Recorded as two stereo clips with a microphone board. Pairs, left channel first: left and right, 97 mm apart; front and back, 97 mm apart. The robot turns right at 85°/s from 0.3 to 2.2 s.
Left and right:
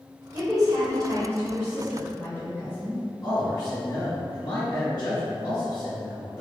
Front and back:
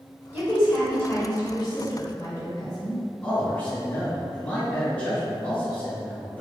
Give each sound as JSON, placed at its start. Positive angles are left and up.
{"t": 0.3, "sound": "a woman speaking", "azimuth_deg": -125, "distance_m": 1.6}
{"t": 3.2, "sound": "a man speaking", "azimuth_deg": 70, "distance_m": 1.5}